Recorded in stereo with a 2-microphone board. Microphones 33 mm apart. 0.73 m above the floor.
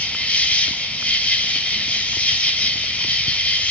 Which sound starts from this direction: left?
An insect, at 0.0 s.